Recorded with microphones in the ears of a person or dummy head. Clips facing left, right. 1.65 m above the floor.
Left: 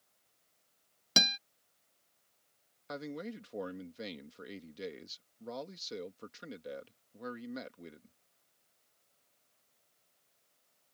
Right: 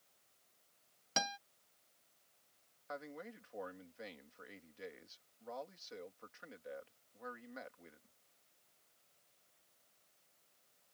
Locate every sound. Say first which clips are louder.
1.2 s a guitar: left 4 dB; 45° left (ahead or behind)
2.9 s a man speaking: left 7 dB; 45° left (ahead or behind)